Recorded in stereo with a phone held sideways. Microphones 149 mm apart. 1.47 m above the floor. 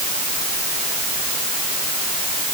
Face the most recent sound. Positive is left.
No sound to turn to.